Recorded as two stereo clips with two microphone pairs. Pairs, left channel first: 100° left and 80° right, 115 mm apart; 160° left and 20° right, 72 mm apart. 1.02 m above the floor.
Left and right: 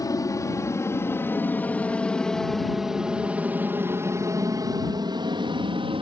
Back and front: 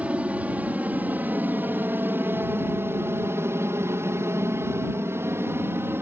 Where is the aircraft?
45° left; by 6.0 s 70° right.